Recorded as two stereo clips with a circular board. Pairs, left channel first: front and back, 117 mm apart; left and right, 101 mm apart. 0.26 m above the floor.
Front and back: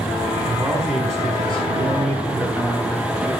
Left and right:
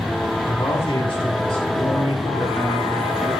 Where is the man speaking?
105° left, 2.5 m; by 3.3 s 70° left, 4.5 m.